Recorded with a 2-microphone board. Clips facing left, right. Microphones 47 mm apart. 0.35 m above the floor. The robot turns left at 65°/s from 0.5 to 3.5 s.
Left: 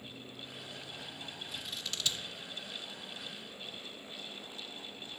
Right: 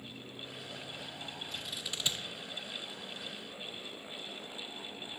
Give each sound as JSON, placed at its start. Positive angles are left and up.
{"t": 1.5, "sound": "scissors", "side_deg": 10, "distance_m": 0.5}